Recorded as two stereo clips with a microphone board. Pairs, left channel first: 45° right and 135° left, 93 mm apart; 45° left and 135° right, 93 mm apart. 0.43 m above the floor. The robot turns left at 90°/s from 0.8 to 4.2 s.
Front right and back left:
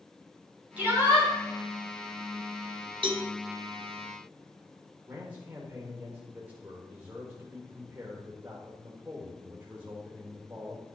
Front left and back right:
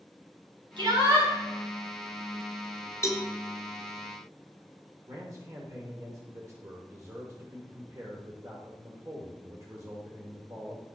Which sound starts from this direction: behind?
A man speaking, at 5.1 s.